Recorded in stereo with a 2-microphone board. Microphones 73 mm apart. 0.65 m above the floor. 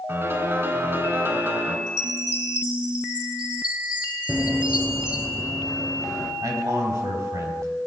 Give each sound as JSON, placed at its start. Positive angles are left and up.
{"t": 0.1, "sound": "a piano", "side_deg": -35, "distance_m": 2.5}
{"t": 1.9, "sound": "a chime", "side_deg": -15, "distance_m": 2.0}
{"t": 4.3, "sound": "running footsteps", "side_deg": -25, "distance_m": 0.6}
{"t": 6.4, "sound": "a man speaking", "side_deg": -50, "distance_m": 4.0}